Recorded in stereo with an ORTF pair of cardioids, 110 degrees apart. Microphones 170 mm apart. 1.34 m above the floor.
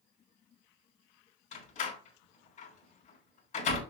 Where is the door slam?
50° left, 3.5 m.